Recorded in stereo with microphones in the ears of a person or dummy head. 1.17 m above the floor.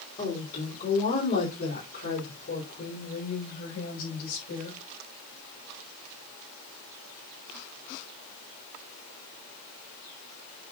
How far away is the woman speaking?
About 3 m.